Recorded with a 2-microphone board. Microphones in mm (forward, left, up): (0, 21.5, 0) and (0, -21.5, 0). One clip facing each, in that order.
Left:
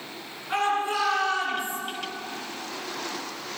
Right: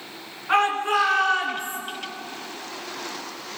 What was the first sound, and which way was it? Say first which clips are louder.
A shout: right 5 dB; 45° right (ahead or behind).